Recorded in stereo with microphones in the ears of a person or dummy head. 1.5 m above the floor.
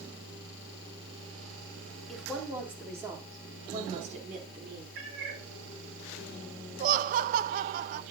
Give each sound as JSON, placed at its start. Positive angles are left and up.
{"t": 2.1, "sound": "a woman speaking", "side_deg": 0, "distance_m": 3.5}
{"t": 5.0, "sound": "a cat meowing", "side_deg": -70, "distance_m": 3.0}
{"t": 6.8, "sound": "laughter", "side_deg": -45, "distance_m": 0.5}